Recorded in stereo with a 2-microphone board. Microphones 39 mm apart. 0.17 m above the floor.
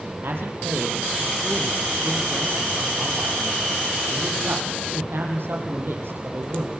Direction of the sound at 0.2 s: 70° right (ahead or behind).